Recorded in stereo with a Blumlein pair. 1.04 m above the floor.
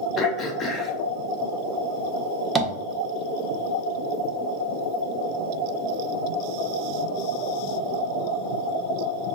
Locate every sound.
0.2 s throat clearing: 20° left, 0.9 m
2.5 s tapping: 15° right, 1.0 m